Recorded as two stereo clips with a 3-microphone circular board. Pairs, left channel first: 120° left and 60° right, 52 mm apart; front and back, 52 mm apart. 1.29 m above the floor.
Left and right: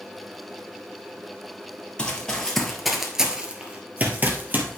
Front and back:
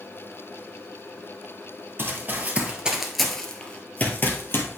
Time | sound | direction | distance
2.0 | running footsteps | 175° right | 1.7 m